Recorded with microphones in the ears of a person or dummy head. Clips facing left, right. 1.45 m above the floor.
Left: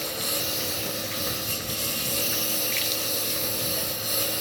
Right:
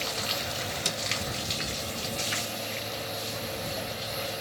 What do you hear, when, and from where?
0.0 s a lawn mower: 65° left (ahead or behind); by 4.4 s 70° left (ahead or behind)